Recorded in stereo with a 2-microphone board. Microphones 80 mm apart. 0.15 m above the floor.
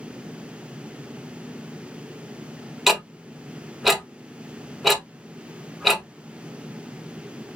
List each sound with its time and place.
2.9 s ticking: centre (ahead or behind), 0.9 m